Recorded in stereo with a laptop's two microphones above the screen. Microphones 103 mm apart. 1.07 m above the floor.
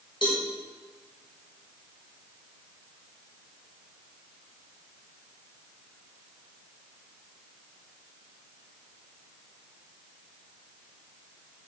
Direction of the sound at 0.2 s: 45° left (ahead or behind).